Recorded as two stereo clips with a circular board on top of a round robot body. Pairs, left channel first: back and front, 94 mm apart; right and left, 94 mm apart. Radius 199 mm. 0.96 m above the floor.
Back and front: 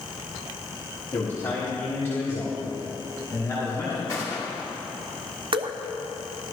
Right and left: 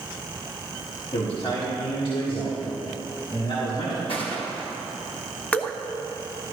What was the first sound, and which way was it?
A man speaking, 110° right.